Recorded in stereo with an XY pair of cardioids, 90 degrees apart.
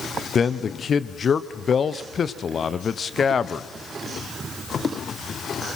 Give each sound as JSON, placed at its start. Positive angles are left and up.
{"t": 0.3, "sound": "a man speaking", "azimuth_deg": 45, "distance_m": 0.9}